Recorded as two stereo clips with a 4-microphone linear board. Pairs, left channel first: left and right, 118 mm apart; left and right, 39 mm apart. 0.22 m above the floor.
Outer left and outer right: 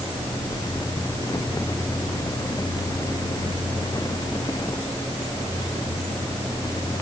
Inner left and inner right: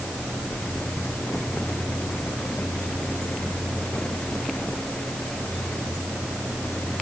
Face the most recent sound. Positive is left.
No sound to turn to.